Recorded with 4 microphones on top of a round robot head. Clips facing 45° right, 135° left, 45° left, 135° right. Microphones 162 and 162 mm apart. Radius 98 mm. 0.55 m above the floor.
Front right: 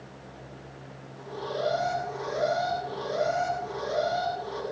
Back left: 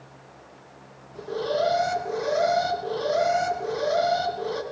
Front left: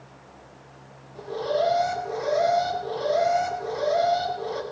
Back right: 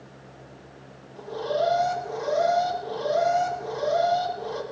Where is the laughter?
No laughter in this recording.